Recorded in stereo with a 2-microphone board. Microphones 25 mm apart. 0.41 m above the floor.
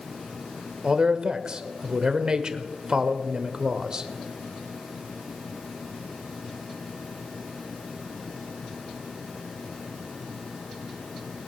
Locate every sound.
0.8 s a man speaking: 35° right (ahead or behind), 1.0 m